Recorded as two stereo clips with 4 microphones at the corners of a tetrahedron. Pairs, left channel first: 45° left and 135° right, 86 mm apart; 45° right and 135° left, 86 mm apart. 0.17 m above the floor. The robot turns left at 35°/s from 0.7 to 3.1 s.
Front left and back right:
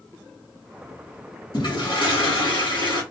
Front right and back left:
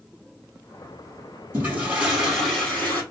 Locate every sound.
1.5 s a toilet flushing: 75° left, 2 m; by 3.0 s 20° left, 2 m